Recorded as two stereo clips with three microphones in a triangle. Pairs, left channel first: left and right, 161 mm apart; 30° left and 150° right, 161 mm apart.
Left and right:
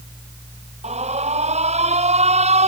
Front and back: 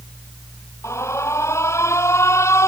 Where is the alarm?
45° right.